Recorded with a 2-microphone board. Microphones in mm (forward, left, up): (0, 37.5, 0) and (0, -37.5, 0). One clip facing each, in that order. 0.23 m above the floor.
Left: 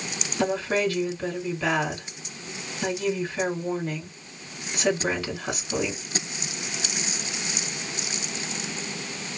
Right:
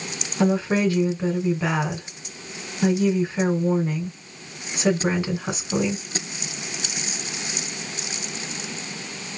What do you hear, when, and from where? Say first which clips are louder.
0.4 s a woman speaking: right 4 dB; 20° right (ahead or behind), 2.5 m